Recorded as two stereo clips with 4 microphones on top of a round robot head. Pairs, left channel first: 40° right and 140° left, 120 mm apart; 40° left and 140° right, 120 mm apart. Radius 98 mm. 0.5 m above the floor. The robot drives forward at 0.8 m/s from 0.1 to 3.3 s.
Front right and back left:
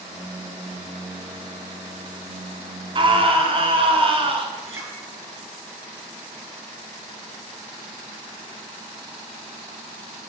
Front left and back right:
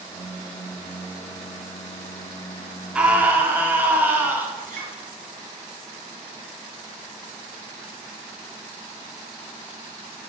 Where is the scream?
140° left, 1.7 m; by 4.5 s 150° left, 1.8 m.